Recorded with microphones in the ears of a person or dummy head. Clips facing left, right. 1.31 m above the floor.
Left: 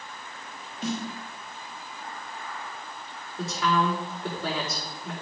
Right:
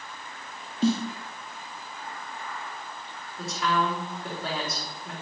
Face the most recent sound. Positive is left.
turn(degrees=60)  # may be behind; listen again after turning